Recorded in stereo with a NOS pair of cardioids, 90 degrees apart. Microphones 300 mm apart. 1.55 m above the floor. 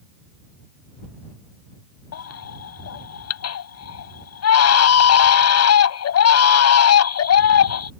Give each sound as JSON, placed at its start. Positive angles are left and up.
{"t": 2.1, "sound": "a baby crying", "azimuth_deg": 60}